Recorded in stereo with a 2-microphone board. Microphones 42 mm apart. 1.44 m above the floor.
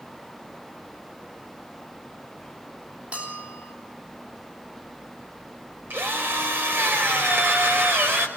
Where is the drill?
55° right (ahead or behind), 4.5 m.